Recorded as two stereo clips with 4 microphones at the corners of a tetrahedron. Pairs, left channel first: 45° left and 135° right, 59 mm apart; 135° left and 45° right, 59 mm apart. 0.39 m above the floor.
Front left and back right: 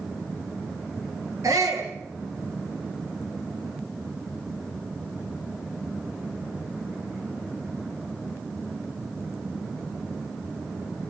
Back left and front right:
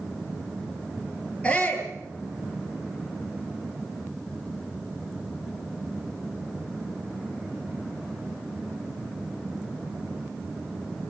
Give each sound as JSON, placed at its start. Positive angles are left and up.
{"t": 1.4, "sound": "a shout", "azimuth_deg": -155, "distance_m": 8.0}